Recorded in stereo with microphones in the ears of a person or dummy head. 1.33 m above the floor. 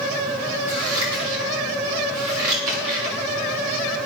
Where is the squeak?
I don't hear a squeak.